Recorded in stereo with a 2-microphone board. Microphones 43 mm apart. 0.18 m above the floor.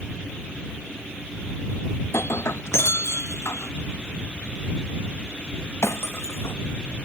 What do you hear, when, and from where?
2.0 s breaking glass: 90° left